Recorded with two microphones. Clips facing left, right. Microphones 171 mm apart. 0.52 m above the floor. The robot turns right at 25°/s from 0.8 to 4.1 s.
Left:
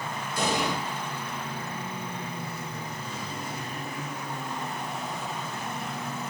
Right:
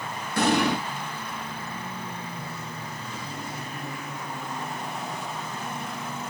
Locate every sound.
0.4 s an explosion: 65° right (ahead or behind), 3.5 m